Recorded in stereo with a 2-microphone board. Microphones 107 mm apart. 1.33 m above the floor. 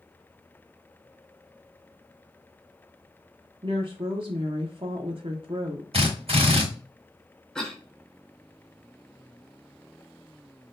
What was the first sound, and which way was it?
A woman speaking, 50° right (ahead or behind).